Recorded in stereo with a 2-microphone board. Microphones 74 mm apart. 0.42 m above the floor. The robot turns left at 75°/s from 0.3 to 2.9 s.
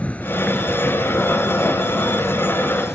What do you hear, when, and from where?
0.0 s an insect: 20° left; by 3.0 s 175° right